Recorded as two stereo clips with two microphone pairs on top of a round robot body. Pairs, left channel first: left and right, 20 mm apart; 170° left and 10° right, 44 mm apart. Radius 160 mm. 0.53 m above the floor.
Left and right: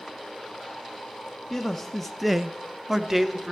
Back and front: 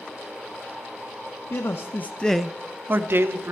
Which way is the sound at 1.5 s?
160° left.